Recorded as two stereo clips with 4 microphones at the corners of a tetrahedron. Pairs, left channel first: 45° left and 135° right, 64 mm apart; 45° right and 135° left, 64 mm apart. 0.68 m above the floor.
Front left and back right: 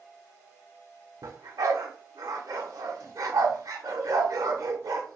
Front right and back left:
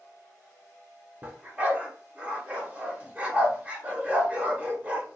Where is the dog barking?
155° right, 0.9 m.